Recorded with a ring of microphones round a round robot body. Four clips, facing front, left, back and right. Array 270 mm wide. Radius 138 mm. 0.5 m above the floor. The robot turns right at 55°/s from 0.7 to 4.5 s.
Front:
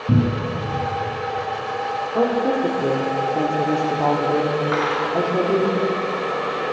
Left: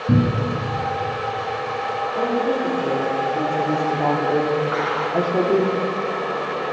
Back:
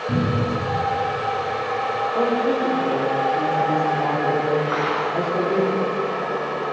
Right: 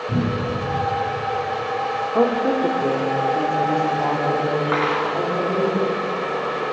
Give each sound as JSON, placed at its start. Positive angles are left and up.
{"t": 0.1, "sound": "a cupboard door", "azimuth_deg": 55, "distance_m": 2.5}
{"t": 2.1, "sound": "a woman speaking", "azimuth_deg": -70, "distance_m": 1.4}
{"t": 4.7, "sound": "cutlery clinking", "azimuth_deg": -80, "distance_m": 3.0}